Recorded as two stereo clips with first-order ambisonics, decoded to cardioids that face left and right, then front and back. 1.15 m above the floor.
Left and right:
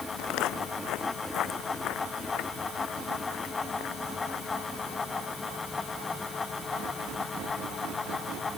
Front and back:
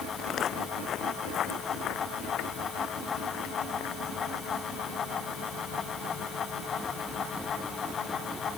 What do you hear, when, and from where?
0.2 s footsteps: 60° left; by 7.9 s 35° left